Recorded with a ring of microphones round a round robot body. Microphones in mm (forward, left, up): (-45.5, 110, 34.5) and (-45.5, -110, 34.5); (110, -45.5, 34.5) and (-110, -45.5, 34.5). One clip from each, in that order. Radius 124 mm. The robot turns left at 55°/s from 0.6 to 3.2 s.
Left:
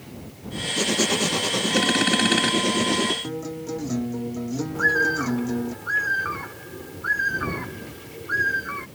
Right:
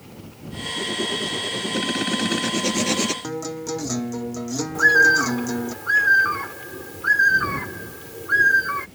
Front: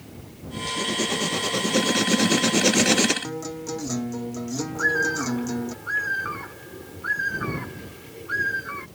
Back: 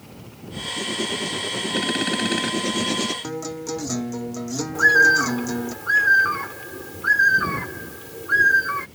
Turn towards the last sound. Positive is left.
turn(degrees=-135)